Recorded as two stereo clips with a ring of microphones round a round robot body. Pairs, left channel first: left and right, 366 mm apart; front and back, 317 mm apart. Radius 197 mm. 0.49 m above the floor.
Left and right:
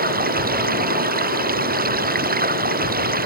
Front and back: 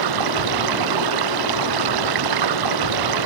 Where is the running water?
155° right.